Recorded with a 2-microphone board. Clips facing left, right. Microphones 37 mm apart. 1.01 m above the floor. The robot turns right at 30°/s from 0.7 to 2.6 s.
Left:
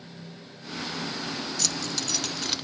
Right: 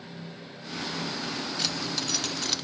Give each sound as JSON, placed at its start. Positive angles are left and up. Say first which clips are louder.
{"t": 1.6, "sound": "keys jangling", "louder": "even", "side_deg": -20, "distance_m": 0.7}